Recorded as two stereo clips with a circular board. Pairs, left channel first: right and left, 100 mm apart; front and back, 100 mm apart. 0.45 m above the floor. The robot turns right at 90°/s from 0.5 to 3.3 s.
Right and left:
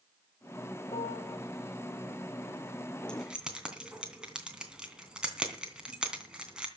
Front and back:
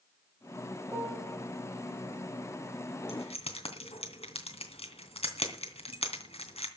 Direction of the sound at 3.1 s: 10° right.